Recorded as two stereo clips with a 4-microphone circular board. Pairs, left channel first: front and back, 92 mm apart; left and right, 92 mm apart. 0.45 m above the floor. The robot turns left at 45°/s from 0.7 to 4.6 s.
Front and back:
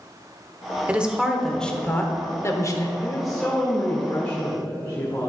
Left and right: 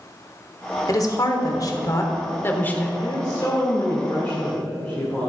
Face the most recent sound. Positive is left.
turn(degrees=25)